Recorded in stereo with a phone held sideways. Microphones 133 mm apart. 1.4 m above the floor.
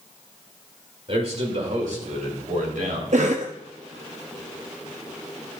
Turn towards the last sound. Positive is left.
turn(degrees=-65)  # may be behind; listen again after turning